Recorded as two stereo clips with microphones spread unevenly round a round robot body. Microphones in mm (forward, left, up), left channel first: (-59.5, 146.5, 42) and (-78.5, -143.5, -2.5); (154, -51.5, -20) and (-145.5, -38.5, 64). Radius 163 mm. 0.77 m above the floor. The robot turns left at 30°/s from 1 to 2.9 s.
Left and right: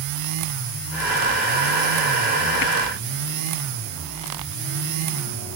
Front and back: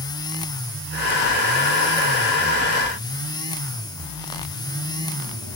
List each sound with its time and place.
Only background noise.